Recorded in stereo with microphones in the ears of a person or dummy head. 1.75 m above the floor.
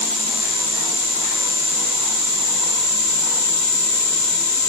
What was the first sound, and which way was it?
Only background noise.